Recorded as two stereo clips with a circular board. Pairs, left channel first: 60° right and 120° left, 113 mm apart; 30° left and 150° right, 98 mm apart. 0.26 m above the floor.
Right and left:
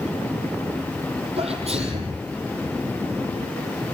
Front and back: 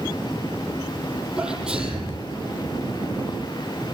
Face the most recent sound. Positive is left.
turn(degrees=130)